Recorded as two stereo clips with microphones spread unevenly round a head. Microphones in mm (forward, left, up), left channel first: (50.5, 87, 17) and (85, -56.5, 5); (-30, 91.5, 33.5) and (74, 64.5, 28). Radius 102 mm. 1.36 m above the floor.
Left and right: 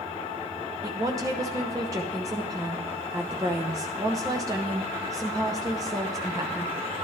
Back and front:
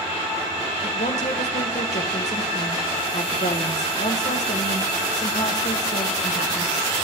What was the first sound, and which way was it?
A woman speaking, 150° right.